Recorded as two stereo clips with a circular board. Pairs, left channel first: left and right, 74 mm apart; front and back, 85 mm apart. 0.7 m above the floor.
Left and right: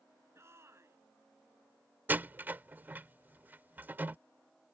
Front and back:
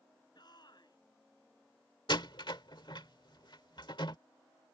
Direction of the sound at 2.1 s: 25° right.